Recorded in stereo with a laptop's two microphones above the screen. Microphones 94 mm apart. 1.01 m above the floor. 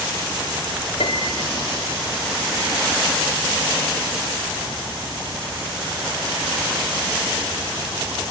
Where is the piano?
80° left, 1.8 m.